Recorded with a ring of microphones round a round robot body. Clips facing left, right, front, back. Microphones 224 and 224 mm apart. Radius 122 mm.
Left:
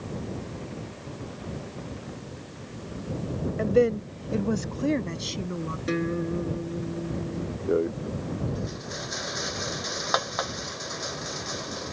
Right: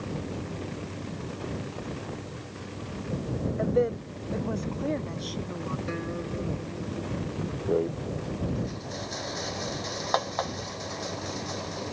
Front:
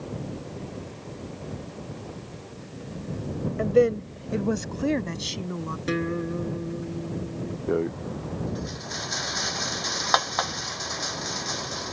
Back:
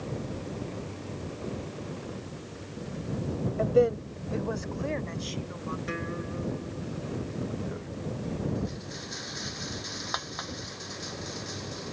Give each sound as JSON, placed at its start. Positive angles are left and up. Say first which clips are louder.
{"t": 3.6, "sound": "a woman speaking", "louder": "left 5 dB, front 3 dB", "azimuth_deg": 55}
{"t": 5.9, "sound": "a guitar", "louder": "left 6 dB, front 8 dB", "azimuth_deg": 40}
{"t": 7.7, "sound": "a rattle", "louder": "left 2 dB, front 11 dB", "azimuth_deg": 15}